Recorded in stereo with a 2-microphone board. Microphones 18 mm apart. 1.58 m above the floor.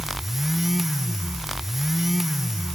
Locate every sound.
Only background noise.